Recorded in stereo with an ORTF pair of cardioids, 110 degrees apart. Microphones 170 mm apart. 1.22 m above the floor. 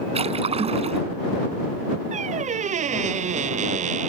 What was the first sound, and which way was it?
A splash, 35° right.